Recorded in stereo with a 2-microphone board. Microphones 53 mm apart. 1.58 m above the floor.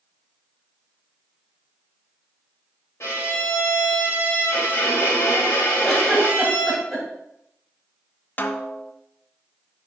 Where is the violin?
65° left (ahead or behind), 1.7 m.